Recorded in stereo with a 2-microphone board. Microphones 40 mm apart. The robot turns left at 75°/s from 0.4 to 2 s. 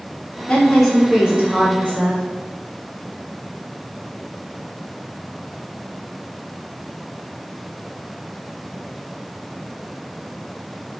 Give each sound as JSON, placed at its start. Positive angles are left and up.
{"t": 0.5, "sound": "a woman speaking", "azimuth_deg": 30, "distance_m": 1.5}